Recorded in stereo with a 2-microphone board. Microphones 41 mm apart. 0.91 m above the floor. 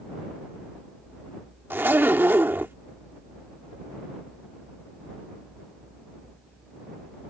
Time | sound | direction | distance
1.7 | a zipper | 70° right (ahead or behind) | ?